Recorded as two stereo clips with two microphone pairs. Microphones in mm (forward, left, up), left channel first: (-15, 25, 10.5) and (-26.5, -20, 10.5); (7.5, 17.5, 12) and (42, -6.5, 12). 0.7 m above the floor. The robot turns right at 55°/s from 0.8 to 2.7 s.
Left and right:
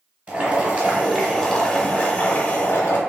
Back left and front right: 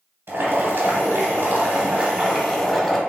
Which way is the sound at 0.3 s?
45° right.